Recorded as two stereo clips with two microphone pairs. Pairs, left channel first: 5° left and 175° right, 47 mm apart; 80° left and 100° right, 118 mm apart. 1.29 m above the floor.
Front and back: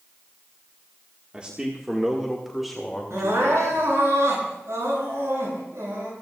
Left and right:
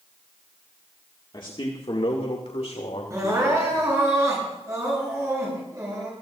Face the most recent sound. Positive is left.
turn(degrees=-160)